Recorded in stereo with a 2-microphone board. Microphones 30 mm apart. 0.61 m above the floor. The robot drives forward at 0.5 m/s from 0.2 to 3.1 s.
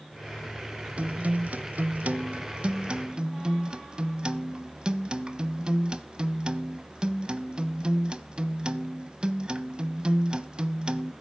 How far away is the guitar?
About 0.6 m.